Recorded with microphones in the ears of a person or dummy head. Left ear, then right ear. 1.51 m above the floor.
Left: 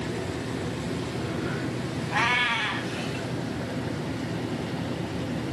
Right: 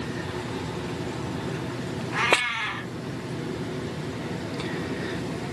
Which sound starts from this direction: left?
A cat meowing, at 2.1 s.